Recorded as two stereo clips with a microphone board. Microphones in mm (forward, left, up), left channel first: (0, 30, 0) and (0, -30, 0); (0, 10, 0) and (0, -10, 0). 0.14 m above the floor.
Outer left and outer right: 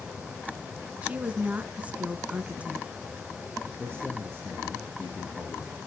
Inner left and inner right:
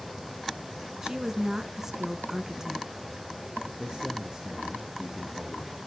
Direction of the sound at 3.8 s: 15° left (ahead or behind).